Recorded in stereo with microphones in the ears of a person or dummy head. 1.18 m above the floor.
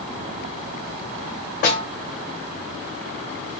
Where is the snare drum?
50° left (ahead or behind), 1.4 m.